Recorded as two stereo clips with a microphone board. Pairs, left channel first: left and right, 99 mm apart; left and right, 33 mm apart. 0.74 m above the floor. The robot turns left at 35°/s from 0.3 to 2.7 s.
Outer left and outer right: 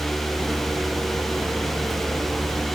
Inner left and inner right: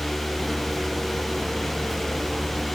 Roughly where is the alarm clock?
I don't hear an alarm clock.